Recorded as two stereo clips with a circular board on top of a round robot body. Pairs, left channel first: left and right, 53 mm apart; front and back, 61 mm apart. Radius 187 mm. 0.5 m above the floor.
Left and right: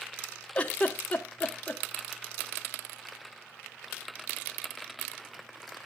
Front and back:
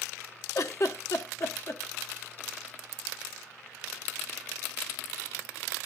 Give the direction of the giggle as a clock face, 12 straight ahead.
11 o'clock.